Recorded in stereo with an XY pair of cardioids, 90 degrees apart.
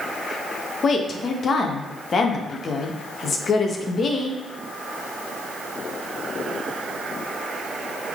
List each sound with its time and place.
0.8 s a woman speaking: 50° left, 1.2 m